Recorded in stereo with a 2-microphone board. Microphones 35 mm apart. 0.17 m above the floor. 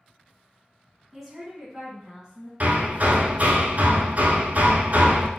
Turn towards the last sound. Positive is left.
turn(degrees=-50)  # may be behind; listen again after turning